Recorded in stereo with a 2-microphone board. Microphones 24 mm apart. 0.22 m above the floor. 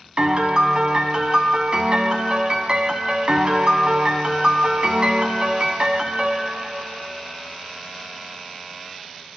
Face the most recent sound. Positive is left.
turn(degrees=-45)  # may be behind; listen again after turning